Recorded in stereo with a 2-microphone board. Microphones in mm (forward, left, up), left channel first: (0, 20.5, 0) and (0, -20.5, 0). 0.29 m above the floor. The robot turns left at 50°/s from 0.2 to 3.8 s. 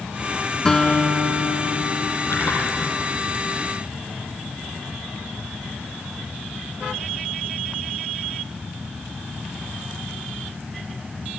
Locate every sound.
0.7 s a guitar: 165° left, 2.5 m; by 2.1 s 95° left, 2.5 m
2.2 s a splash: 65° left (ahead or behind), 6.5 m; by 3.0 s 75° left (ahead or behind), 6.5 m